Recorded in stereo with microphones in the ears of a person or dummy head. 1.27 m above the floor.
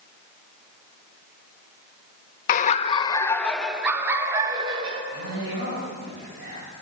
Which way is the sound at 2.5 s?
50° left (ahead or behind).